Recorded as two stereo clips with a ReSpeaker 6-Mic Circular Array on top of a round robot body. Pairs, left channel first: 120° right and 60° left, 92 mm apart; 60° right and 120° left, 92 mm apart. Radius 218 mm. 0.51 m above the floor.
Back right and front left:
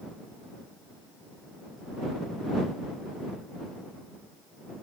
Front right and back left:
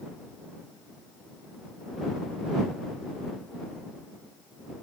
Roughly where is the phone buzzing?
No phone buzzing in this recording.